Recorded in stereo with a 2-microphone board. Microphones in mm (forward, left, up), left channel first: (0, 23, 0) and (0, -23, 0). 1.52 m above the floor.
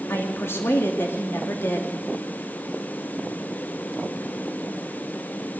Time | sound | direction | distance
0.1 | a woman speaking | 70° left (ahead or behind) | 2.5 m